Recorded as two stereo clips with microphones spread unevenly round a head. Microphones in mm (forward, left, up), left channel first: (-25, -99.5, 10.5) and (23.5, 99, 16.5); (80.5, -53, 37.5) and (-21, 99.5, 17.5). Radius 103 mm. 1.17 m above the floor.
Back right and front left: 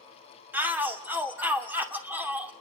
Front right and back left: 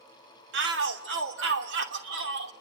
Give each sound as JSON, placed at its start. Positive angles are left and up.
{"t": 0.5, "sound": "a shout", "azimuth_deg": 160, "distance_m": 2.5}